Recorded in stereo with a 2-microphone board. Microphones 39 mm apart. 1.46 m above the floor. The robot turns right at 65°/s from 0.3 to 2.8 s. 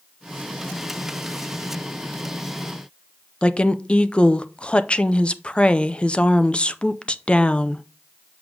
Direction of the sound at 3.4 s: 30° left (ahead or behind).